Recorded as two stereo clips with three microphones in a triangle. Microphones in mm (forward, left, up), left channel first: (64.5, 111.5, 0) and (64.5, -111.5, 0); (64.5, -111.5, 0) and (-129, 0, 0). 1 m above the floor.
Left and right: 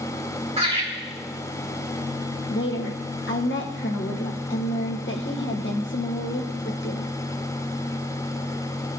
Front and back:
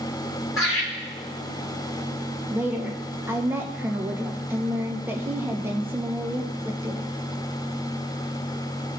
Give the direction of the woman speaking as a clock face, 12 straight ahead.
10 o'clock.